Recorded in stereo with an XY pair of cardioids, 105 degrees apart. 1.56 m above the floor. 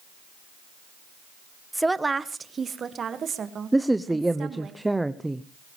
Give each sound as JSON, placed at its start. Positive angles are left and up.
{"t": 1.7, "sound": "a woman speaking", "azimuth_deg": -5, "distance_m": 0.9}
{"t": 3.7, "sound": "a man speaking", "azimuth_deg": -10, "distance_m": 0.7}